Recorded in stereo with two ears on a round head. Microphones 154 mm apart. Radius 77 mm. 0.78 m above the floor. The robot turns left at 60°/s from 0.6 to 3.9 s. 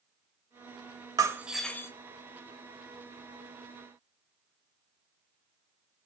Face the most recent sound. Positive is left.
turn(degrees=40)